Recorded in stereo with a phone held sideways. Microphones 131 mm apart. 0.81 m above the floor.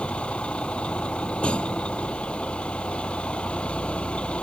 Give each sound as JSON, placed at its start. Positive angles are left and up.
{"t": 0.0, "sound": "a vehicle", "side_deg": 10}